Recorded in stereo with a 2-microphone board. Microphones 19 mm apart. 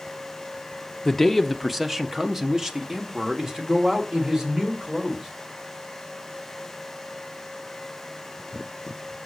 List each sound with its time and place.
1.1 s a man speaking: 20° left (ahead or behind), 0.5 m; by 5.3 s 30° right (ahead or behind), 2.5 m